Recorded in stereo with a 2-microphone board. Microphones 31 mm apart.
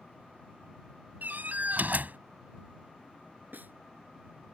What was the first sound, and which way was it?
A door slam, 75° right (ahead or behind).